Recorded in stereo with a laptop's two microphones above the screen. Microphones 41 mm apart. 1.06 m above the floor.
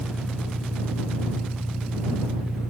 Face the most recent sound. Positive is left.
turn(degrees=-25)  # may be behind; listen again after turning